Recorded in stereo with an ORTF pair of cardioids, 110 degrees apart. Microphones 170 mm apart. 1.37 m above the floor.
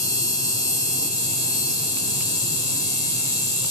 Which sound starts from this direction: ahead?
An insect, at 0.0 s.